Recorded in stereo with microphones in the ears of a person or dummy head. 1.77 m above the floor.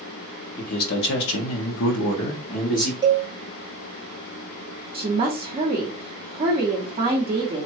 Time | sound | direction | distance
0.6 | a man speaking | 50° left (ahead or behind) | 1.0 m
3.0 | a cowbell | 25° right (ahead or behind) | 0.5 m
4.9 | a woman speaking | 20° right (ahead or behind) | 0.8 m